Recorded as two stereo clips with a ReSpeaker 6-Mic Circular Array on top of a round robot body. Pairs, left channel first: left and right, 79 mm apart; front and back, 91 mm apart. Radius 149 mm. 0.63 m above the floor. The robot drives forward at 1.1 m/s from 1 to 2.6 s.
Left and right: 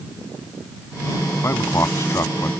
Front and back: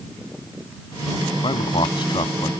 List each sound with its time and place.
1.4 s a man speaking: 35° left; by 2.5 s 40° left